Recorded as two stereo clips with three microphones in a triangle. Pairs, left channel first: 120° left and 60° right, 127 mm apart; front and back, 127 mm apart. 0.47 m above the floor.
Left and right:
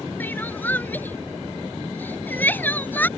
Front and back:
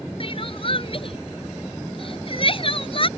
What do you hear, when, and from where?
0.2 s crying: 45° left